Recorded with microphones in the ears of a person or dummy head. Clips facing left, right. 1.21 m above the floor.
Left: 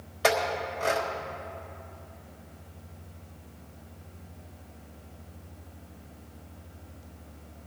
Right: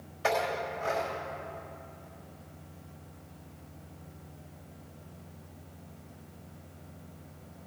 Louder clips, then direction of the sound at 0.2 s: Left 3 dB; 70° left (ahead or behind).